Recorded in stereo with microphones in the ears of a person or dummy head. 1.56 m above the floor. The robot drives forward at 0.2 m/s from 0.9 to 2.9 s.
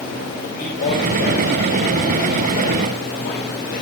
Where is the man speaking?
55° left (ahead or behind), 2 m; by 3.8 s 50° left (ahead or behind), 2.5 m.